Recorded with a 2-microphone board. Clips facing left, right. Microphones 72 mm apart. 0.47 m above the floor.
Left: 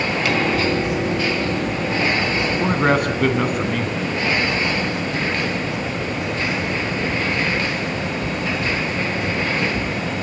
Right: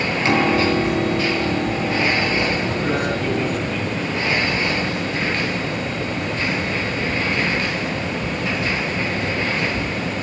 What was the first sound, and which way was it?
A piano, 30° right (ahead or behind).